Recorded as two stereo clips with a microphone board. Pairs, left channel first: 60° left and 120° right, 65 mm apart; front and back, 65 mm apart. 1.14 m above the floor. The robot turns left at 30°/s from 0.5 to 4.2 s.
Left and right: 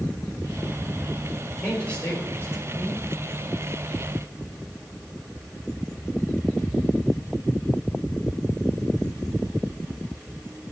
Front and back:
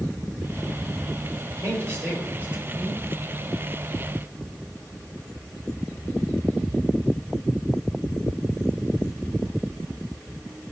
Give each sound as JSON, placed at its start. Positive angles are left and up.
{"t": 1.5, "sound": "a man speaking", "azimuth_deg": 145, "distance_m": 5.5}